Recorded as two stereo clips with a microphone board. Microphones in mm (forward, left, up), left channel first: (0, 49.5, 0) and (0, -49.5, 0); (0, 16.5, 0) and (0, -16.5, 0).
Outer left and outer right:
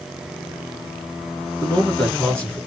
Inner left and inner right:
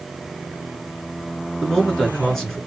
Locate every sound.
1.6 s a man speaking: 10° left (ahead or behind), 1.8 m